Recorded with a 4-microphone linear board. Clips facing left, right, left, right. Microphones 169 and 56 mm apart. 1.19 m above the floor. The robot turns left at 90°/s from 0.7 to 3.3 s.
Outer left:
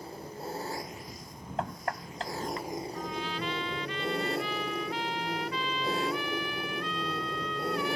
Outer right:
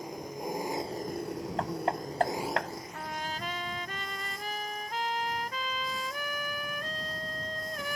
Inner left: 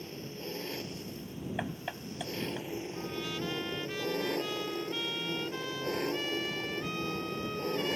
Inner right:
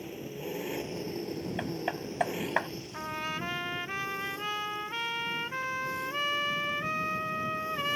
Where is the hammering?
5° left (ahead or behind); by 2.7 s 85° right.